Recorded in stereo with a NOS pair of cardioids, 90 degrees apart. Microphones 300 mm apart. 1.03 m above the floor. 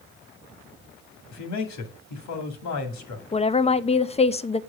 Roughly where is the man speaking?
Ahead left.